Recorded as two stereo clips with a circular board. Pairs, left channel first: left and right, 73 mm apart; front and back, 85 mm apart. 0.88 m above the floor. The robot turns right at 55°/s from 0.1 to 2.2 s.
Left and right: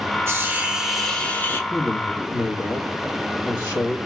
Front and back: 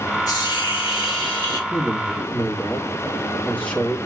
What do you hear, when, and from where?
0.3 s a hiss: 40° right, 1.1 m; by 1.6 s 35° left, 1.1 m
1.7 s a man speaking: 45° left, 1.4 m; by 4.0 s 70° left, 1.4 m